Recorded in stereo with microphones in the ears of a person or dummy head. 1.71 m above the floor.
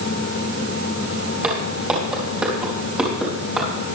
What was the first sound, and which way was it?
Footsteps, 15° right (ahead or behind).